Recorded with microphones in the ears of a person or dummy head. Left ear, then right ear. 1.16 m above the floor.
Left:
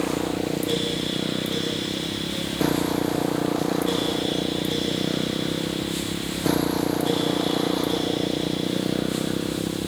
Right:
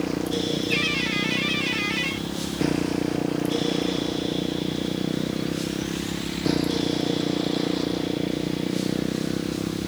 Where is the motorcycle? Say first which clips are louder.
Left 1 dB; 30° left (ahead or behind).